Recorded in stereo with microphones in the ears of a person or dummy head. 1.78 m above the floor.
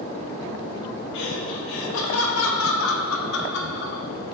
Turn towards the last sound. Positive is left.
turn(degrees=55)  # may be behind; listen again after turning